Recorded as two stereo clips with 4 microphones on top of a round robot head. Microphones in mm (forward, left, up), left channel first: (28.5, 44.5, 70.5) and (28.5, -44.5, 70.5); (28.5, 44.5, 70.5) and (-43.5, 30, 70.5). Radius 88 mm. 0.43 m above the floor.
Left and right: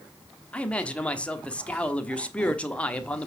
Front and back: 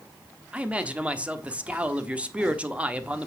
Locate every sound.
0.5 s a man speaking: 145° left, 1.3 m